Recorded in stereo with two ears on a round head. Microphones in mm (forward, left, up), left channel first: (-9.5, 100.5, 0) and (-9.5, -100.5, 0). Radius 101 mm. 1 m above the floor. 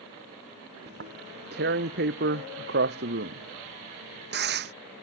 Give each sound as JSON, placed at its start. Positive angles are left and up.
{"t": 0.9, "sound": "tearing paper", "side_deg": -50}